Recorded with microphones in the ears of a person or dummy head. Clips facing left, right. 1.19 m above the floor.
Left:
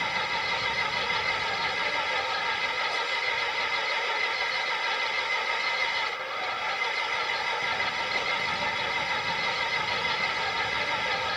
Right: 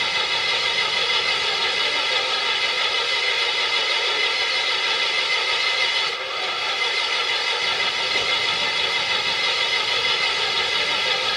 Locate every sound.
0.0 s an engine running: 50° right (ahead or behind)